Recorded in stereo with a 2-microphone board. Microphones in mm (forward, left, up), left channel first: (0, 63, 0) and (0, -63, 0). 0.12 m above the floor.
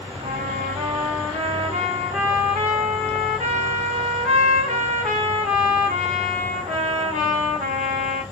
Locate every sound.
0.2 s a trumpet: 75° right (ahead or behind), 2.5 m